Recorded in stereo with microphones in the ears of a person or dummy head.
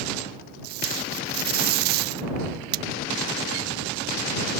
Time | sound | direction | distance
0.6 | tape being pulled | 50° right (ahead or behind) | ?